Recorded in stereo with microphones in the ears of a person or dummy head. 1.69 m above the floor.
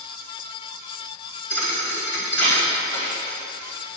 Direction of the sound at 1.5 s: 50° left (ahead or behind).